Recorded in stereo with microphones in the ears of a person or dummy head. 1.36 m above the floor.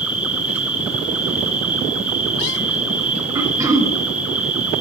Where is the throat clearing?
20° right (ahead or behind), 1.7 m.